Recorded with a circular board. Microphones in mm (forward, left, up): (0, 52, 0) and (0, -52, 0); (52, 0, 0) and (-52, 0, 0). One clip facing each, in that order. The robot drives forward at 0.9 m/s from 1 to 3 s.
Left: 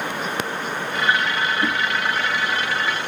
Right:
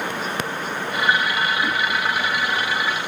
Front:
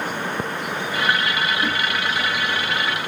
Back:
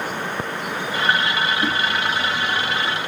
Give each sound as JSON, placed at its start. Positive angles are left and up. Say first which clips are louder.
{"t": 1.6, "sound": "a whoosh", "louder": "left 1 dB, back 1 dB", "azimuth_deg": 130, "distance_m": 1.5}